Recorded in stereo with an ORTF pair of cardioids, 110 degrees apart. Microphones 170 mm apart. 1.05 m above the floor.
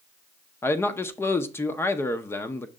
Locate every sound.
0.6 s a man speaking: 15° left, 0.6 m